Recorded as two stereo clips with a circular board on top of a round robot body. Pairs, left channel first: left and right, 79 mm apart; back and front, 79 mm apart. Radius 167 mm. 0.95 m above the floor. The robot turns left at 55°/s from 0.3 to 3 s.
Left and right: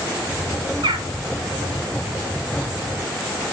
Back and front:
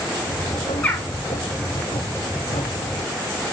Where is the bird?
105° right, 0.6 m; by 1.1 s 120° right, 0.6 m.